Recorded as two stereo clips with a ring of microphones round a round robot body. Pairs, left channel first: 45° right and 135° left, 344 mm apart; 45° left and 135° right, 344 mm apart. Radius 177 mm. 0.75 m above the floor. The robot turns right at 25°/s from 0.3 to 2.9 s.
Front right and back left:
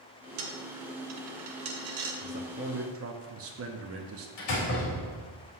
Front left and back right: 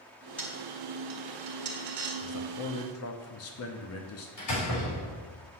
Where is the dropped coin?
130° left, 1.3 m; by 2.1 s 175° left, 1.3 m.